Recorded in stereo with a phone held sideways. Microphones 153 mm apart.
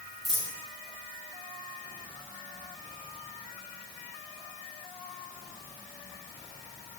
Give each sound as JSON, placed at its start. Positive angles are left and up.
{"t": 0.2, "sound": "a dropped coin", "side_deg": 20, "distance_m": 5.5}